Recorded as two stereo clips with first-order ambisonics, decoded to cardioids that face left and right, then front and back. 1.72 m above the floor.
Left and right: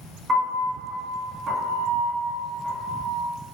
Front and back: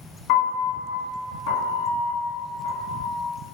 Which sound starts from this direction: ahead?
A piano, at 0.3 s.